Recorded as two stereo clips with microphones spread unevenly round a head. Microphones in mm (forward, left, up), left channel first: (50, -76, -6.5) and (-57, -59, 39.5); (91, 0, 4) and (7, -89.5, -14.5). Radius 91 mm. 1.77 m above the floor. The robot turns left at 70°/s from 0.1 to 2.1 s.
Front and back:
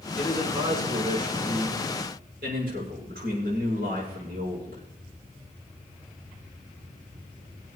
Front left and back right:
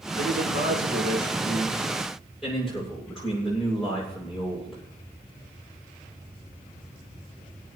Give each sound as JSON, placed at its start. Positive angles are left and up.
{"t": 0.2, "sound": "a man speaking", "azimuth_deg": -85, "distance_m": 7.5}